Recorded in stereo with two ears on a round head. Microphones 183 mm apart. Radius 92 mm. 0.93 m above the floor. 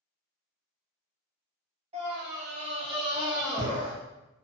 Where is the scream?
30° right (ahead or behind), 1.6 m; by 3.9 s 10° right (ahead or behind), 0.8 m.